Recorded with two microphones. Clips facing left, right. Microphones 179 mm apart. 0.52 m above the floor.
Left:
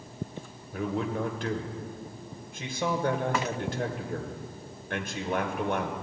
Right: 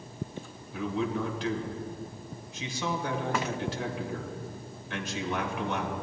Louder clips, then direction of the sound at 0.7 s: Even; 55° left (ahead or behind).